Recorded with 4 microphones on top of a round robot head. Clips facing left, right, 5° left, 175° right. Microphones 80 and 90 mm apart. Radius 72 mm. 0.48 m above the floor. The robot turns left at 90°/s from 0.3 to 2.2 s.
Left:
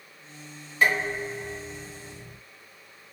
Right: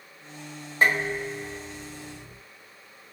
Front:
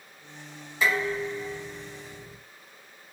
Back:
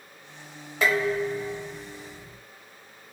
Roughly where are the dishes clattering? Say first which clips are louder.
Right 1 dB, back 3 dB; behind right.